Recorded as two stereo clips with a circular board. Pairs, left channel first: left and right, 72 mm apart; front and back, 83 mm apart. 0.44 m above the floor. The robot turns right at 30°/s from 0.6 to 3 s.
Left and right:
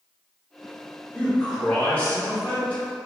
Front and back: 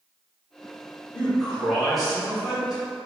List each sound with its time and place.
1.1 s a man speaking: 65° left, 1.1 m; by 2.8 s 115° left, 1.1 m